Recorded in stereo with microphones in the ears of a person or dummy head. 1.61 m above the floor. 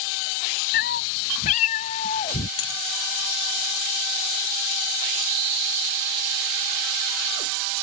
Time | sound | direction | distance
0.7 | a cat meowing | 55° left (ahead or behind) | ?
2.6 | a dropped coin | 35° left (ahead or behind) | ?